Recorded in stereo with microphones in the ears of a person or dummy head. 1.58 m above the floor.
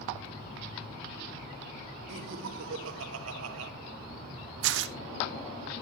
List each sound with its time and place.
2.1 s laughter: 70° right (ahead or behind), 1.9 m
4.6 s tearing paper: 70° right (ahead or behind), 0.6 m